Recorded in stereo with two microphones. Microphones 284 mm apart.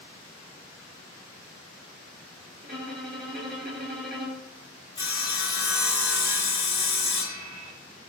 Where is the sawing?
75° left (ahead or behind), 0.5 m.